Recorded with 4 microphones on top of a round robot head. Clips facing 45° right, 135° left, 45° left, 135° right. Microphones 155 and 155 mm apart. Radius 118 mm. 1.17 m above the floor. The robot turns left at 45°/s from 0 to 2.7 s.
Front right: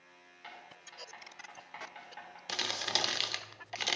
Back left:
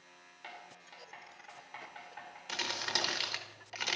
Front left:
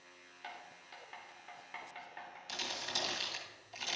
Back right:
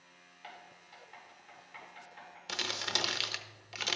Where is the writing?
90° left, 3 m; by 2.4 s straight ahead, 3 m.